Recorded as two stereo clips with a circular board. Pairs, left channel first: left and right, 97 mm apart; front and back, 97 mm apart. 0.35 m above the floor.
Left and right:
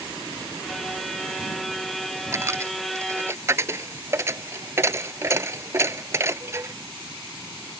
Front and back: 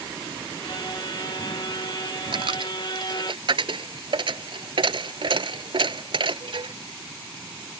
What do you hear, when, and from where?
0.6 s a violin: straight ahead
2.3 s a dropped coin: 150° right